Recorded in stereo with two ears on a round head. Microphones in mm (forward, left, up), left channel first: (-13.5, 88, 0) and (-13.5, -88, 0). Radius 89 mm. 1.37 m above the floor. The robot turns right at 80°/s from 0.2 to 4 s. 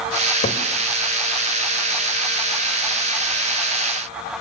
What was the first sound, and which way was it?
A cupboard door, 40° left (ahead or behind).